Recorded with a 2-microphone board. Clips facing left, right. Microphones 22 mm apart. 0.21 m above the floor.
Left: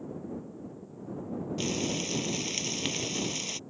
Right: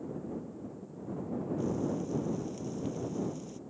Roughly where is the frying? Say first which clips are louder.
Left 4 dB; left.